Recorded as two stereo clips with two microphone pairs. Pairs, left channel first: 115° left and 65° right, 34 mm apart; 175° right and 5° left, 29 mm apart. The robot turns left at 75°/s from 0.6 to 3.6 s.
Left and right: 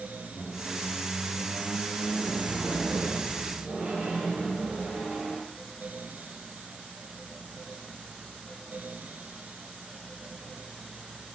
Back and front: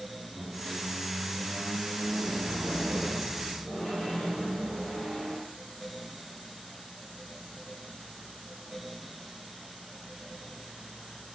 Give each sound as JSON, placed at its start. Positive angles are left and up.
{"t": 0.3, "sound": "a squeak", "azimuth_deg": 115, "distance_m": 1.0}